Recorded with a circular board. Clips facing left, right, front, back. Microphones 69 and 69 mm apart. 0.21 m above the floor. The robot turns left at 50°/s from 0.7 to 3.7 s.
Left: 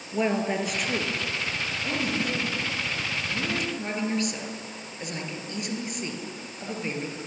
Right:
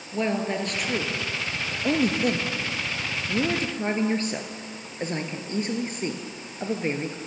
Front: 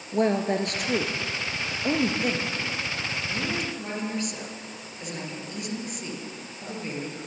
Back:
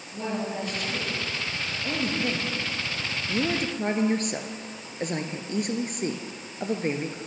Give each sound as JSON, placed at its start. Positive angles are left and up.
{"t": 0.1, "sound": "a woman speaking", "azimuth_deg": 5, "distance_m": 3.0}